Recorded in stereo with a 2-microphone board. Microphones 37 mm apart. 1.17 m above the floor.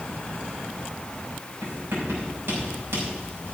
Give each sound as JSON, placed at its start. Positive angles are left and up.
{"t": 1.6, "sound": "writing", "side_deg": -70, "distance_m": 5.5}